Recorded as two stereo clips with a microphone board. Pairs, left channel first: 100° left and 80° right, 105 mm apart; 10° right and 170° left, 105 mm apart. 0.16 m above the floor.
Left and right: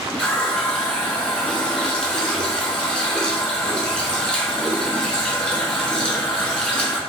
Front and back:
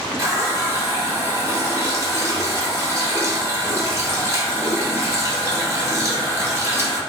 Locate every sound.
0.2 s a running tap: 170° left, 0.8 m